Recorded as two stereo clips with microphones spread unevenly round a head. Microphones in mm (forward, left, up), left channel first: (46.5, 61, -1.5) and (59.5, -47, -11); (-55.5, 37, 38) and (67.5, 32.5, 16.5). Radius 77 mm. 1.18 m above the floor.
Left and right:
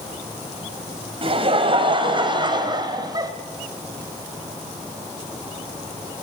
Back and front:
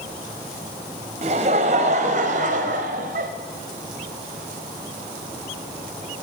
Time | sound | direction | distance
1.2 | laughter | 50° right | 5.5 m